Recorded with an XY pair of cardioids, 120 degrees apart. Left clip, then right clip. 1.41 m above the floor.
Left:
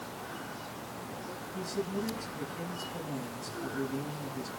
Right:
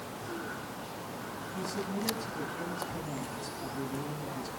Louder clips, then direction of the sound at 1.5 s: Left 1 dB; straight ahead.